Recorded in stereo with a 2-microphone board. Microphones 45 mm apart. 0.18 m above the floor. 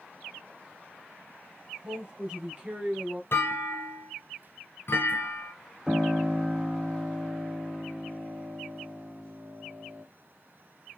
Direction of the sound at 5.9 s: 5° right (ahead or behind).